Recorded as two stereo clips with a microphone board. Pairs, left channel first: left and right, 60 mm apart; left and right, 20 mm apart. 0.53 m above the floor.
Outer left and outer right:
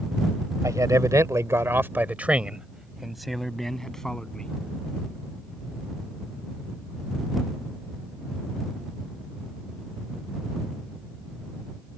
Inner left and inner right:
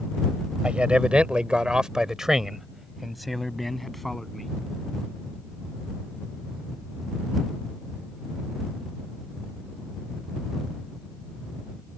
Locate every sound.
0.6 s a man speaking: 70° right (ahead or behind); by 4.5 s 10° left (ahead or behind)